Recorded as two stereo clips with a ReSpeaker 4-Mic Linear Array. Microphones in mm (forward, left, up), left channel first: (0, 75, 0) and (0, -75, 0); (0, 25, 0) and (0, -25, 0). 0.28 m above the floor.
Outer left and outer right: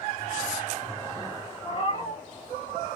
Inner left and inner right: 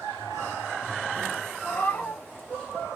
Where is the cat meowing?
45° left (ahead or behind), 0.9 m.